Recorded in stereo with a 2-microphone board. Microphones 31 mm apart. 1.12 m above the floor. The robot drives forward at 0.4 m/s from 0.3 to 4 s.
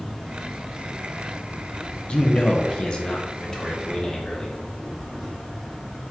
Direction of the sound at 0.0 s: Centre (ahead or behind).